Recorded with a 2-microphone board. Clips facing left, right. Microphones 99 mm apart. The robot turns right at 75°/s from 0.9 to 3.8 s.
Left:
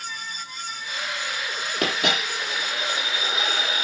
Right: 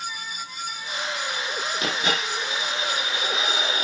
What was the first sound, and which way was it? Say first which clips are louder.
A dropped coin: left 3 dB; 65° left.